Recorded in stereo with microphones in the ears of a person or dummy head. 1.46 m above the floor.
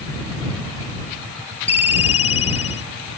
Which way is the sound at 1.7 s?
30° left (ahead or behind).